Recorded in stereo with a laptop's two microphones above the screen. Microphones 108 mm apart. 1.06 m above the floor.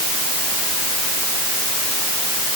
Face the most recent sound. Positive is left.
No sound to turn to.